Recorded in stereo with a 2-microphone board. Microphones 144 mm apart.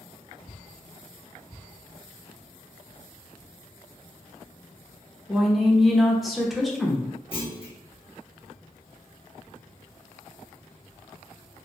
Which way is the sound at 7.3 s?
35° left (ahead or behind).